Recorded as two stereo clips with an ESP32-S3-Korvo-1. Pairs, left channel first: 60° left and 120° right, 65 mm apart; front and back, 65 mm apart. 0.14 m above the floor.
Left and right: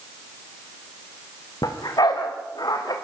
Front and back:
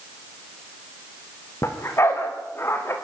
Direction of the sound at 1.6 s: 45° left.